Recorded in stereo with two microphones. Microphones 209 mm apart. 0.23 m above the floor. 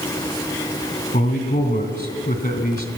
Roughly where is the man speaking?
Left.